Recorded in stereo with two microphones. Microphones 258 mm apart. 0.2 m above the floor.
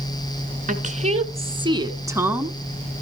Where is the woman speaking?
30° right (ahead or behind), 2 m; by 2.6 s centre (ahead or behind), 1.5 m.